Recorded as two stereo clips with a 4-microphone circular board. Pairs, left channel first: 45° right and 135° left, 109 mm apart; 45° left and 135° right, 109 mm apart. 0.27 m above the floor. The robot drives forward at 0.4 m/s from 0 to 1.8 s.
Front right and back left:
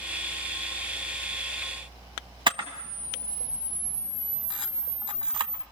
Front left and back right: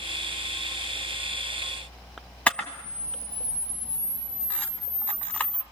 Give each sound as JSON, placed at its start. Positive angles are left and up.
{"t": 2.5, "sound": "a camera shutter", "azimuth_deg": 120, "distance_m": 1.4}